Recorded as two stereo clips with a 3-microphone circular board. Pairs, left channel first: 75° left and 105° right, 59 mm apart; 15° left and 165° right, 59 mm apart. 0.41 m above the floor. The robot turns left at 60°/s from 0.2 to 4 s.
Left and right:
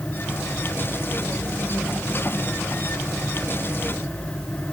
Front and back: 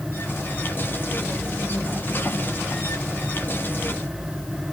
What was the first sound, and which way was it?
Only background noise.